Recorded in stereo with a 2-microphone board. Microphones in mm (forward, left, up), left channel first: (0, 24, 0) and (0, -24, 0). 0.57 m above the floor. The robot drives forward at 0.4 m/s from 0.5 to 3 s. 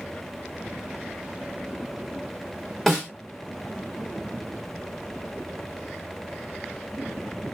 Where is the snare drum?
5° left (ahead or behind), 2.5 m.